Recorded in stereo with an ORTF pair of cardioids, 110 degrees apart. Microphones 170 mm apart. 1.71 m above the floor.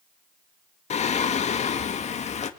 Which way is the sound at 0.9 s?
45° left.